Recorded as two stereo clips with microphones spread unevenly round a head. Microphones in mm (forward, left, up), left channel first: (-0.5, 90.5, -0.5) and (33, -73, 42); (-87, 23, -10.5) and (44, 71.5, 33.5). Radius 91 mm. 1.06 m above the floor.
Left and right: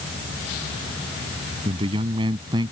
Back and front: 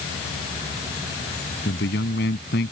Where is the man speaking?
140° right; by 2.7 s 145° right.